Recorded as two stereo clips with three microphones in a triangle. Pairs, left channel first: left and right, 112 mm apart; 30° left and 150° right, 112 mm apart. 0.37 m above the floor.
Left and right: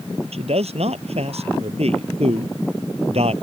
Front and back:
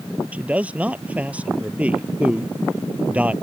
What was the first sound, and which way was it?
A man speaking, 75° right.